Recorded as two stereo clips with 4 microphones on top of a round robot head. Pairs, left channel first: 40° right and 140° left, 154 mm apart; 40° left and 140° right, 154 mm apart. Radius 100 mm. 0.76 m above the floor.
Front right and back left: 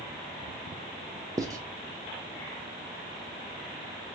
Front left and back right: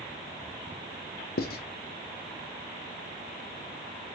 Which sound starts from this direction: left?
Writing, at 1.4 s.